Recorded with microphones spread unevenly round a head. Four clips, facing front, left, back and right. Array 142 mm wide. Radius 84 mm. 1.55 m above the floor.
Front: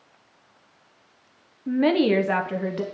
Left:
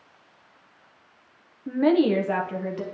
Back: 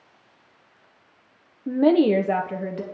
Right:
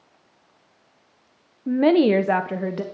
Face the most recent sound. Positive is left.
turn(degrees=-105)